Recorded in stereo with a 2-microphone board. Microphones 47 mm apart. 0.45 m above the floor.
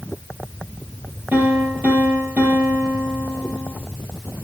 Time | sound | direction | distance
1.3 | a piano | 45° right (ahead or behind) | 3.5 m